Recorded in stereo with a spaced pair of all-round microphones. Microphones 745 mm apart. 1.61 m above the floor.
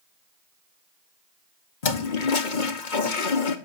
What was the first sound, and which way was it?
A toilet flushing, 85° left.